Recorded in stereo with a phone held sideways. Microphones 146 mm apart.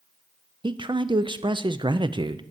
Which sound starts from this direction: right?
A man speaking, at 0.6 s.